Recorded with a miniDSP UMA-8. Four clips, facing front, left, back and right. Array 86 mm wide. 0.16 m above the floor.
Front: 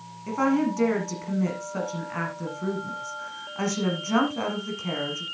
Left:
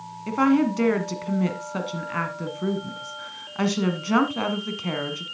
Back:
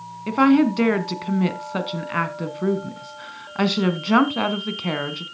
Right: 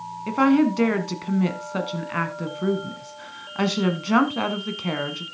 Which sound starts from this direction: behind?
A woman speaking, at 0.3 s.